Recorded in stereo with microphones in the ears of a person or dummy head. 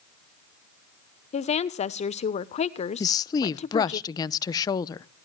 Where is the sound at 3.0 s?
20° left (ahead or behind), 0.6 m.